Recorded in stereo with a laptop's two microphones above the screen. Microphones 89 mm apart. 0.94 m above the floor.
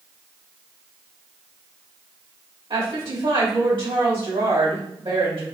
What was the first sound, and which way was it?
A woman speaking, 75° right (ahead or behind).